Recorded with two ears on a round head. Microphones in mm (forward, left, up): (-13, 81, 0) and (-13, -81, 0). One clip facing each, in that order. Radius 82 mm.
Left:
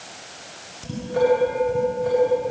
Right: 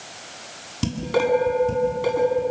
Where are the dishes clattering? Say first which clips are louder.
Left 2 dB; 80° right, 8.5 m.